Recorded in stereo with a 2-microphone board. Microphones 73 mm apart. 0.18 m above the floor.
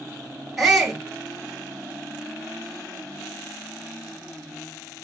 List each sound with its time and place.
0.6 s a shout: 5° right (ahead or behind), 1.1 m